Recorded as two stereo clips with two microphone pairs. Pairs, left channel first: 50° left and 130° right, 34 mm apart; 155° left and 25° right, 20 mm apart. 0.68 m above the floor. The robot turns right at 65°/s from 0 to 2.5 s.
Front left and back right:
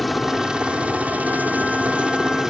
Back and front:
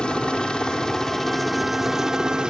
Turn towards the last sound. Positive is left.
turn(degrees=-60)